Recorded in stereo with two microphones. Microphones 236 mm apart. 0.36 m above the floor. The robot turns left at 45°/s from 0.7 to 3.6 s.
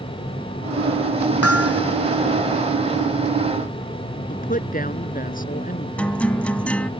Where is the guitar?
5° left (ahead or behind).